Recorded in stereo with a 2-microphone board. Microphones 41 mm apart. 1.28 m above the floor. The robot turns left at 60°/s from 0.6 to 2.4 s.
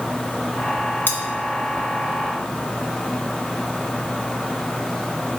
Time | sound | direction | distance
1.1 | cutlery clinking | 55° left (ahead or behind) | 0.7 m